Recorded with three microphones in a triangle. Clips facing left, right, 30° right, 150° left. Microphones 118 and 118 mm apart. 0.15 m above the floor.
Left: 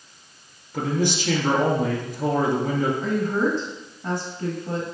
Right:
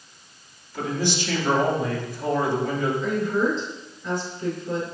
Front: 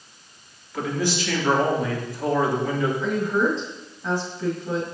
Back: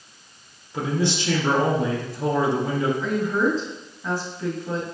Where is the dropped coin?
I don't hear a dropped coin.